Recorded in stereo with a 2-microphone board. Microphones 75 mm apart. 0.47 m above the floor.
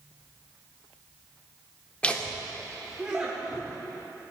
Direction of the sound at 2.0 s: 15° left (ahead or behind).